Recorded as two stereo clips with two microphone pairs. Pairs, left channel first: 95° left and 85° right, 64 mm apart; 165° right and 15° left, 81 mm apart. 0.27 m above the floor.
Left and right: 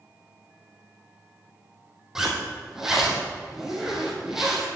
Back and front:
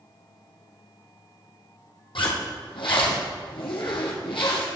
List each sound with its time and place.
2.1 s a zipper: 165° right, 2.5 m